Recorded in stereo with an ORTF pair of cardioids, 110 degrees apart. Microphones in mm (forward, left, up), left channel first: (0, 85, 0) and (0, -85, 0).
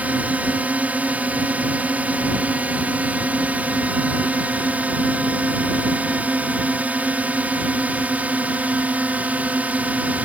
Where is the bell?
No bell in this recording.